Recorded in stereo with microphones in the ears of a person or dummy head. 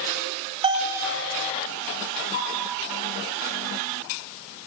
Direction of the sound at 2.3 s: 30° left (ahead or behind).